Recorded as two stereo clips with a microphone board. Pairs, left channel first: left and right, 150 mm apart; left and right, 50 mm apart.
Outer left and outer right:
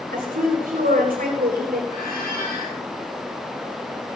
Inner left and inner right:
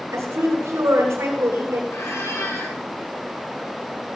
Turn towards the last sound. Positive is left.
turn(degrees=85)